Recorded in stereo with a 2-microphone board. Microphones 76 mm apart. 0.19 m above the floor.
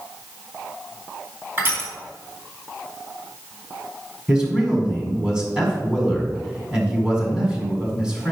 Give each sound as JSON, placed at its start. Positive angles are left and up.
{"t": 1.6, "sound": "crushing", "side_deg": -30, "distance_m": 1.9}
{"t": 4.3, "sound": "a man speaking", "side_deg": -10, "distance_m": 1.6}